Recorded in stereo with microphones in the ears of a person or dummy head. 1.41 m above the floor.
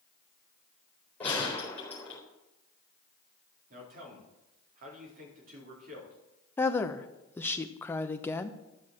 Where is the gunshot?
5° left (ahead or behind), 4 m.